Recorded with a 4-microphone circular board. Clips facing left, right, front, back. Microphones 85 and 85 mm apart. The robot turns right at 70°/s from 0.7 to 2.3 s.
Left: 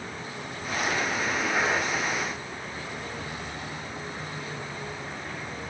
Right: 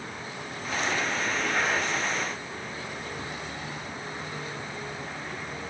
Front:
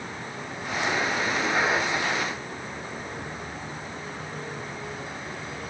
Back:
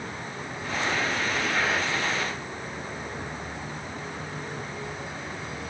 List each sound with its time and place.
Only background noise.